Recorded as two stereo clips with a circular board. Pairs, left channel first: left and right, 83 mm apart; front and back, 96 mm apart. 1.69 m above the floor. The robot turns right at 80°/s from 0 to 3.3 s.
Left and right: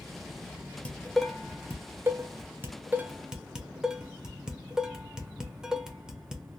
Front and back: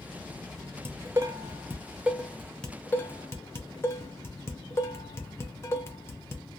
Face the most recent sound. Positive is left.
turn(degrees=-15)